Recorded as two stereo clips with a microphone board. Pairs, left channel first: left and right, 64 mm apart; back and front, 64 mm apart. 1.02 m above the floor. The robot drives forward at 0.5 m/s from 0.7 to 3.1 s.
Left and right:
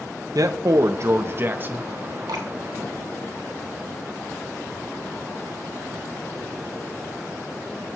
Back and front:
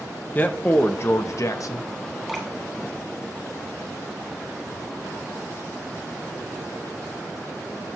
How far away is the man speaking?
About 0.5 m.